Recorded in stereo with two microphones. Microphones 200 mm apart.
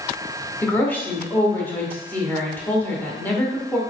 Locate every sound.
0.6 s a woman speaking: 10° left (ahead or behind), 0.8 m